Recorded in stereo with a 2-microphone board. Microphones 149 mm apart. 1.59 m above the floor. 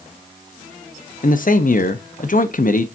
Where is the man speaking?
65° left (ahead or behind), 1.0 m.